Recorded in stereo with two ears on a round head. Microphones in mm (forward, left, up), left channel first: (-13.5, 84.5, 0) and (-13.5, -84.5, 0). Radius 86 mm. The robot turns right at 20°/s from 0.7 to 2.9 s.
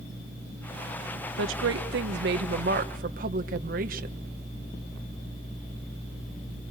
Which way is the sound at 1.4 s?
80° right.